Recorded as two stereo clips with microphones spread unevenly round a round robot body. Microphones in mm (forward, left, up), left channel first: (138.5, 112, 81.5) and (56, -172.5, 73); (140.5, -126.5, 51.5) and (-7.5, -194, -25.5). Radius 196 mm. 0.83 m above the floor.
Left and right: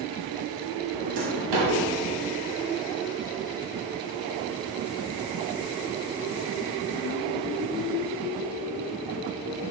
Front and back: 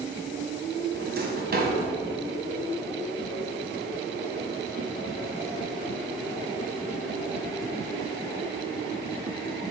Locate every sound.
0.9 s a drawer: 120° right, 1.7 m